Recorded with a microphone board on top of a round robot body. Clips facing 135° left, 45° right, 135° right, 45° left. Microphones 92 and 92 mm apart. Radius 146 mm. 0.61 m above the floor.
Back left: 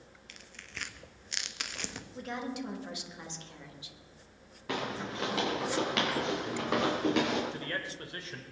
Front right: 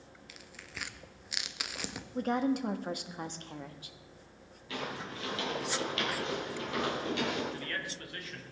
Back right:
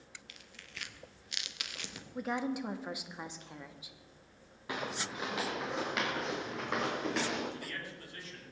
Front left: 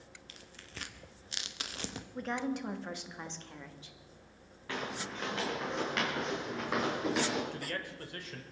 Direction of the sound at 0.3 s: 35° left.